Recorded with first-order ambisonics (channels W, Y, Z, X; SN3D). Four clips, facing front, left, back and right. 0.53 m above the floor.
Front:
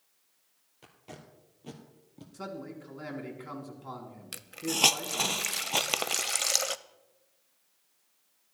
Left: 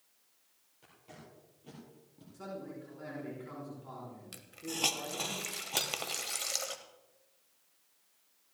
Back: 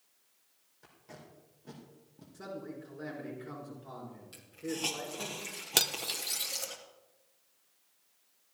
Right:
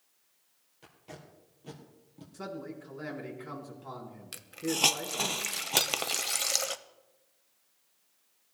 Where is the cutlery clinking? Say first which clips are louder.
Right 6 dB, even; 145° right, 0.7 m.